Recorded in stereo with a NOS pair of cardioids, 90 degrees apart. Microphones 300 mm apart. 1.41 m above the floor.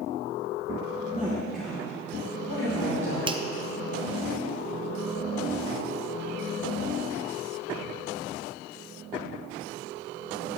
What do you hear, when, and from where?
1.1 s a woman speaking: 20° right, 1.4 m; by 3.2 s 40° left, 3 m
3.3 s a finger snap: 15° right, 0.5 m